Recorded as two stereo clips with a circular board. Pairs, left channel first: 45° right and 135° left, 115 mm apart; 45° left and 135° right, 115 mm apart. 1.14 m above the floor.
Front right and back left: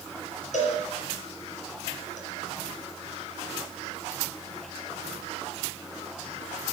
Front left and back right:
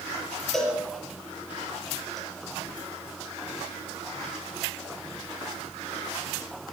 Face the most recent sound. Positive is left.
turn(degrees=-45)